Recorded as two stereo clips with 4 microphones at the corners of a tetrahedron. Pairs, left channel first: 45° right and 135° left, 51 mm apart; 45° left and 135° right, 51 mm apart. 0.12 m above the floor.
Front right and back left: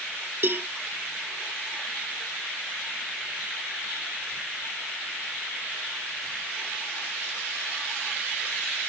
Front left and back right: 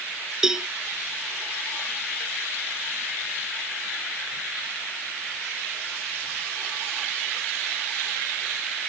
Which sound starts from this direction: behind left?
A cowbell, at 0.4 s.